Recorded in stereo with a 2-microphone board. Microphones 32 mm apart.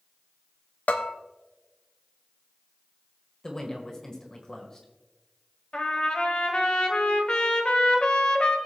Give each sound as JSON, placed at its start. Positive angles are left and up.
{"t": 0.9, "sound": "a bell", "side_deg": 50, "distance_m": 0.8}
{"t": 3.4, "sound": "a woman speaking", "side_deg": 15, "distance_m": 1.6}
{"t": 5.7, "sound": "a trumpet", "side_deg": 35, "distance_m": 1.5}